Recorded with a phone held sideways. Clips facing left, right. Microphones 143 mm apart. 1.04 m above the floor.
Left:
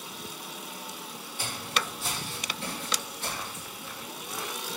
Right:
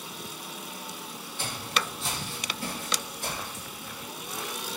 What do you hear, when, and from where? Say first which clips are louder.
1.4 s footsteps: right 1 dB; 10° left (ahead or behind), 2.5 m; by 3.6 s 20° right (ahead or behind), 2 m